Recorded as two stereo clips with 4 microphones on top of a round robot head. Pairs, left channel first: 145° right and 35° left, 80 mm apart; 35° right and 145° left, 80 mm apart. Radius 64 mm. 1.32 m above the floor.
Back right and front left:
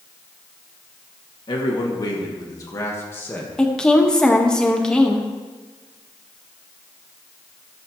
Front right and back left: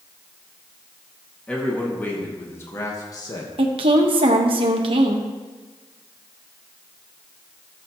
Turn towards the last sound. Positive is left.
turn(degrees=135)